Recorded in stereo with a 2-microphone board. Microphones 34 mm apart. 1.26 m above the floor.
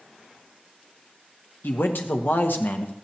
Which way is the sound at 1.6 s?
80° left.